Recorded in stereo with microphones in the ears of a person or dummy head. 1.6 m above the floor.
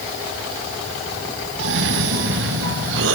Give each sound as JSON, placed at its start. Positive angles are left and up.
{"t": 1.6, "sound": "a cough", "side_deg": -70, "distance_m": 1.6}